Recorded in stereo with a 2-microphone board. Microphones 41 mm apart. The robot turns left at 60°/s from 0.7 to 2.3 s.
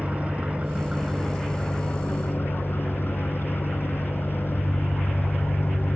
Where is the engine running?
145° right, 1.7 m; by 6.0 s 120° left, 1.7 m.